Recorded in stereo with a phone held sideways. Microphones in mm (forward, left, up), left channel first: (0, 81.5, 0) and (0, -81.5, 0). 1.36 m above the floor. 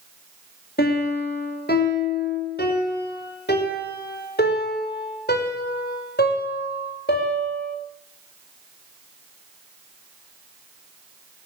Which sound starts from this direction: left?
A piano, at 0.8 s.